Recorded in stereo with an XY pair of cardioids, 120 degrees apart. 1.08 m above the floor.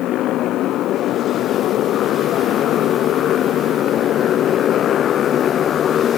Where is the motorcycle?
65° left; by 6.2 s 45° left.